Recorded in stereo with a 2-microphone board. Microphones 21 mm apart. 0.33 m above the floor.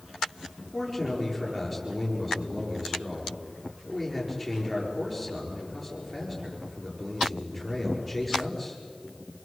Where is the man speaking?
Centre (ahead or behind), 7.5 m.